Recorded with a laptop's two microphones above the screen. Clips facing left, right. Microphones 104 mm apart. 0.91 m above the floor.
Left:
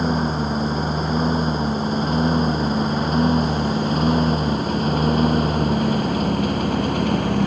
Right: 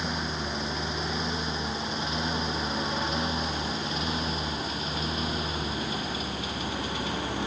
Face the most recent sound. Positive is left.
turn(degrees=60)  # may be behind; listen again after turning